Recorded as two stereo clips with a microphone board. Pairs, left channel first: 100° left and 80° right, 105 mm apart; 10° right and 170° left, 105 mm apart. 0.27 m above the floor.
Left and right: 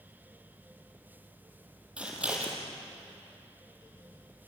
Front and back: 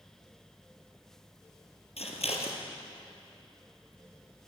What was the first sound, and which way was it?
Scissors, straight ahead.